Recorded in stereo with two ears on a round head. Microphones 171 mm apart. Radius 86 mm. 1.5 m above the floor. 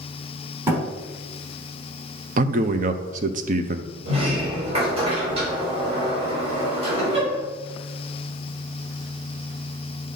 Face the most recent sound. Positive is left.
turn(degrees=-30)  # may be behind; listen again after turning